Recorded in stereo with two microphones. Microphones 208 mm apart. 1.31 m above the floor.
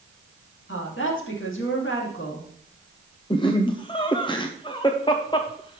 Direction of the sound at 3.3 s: 25° left (ahead or behind).